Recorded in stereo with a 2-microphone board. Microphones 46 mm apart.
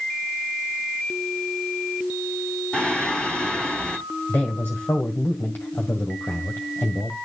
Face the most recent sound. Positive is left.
turn(degrees=50)  # may be behind; listen again after turning